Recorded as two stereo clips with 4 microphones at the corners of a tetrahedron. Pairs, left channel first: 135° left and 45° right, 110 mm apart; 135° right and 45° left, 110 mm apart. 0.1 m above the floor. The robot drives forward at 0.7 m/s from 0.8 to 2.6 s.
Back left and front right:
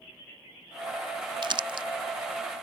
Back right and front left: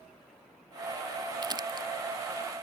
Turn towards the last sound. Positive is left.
turn(degrees=-5)